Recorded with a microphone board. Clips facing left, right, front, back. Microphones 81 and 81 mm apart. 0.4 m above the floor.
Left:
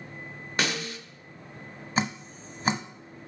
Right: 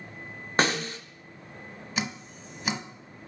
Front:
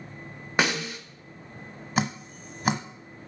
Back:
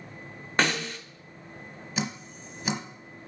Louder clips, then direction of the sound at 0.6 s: Right 4 dB, even; 70° right.